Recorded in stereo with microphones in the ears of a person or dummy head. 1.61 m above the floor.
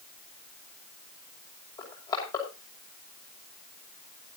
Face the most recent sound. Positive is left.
turn(degrees=30)  # may be behind; listen again after turning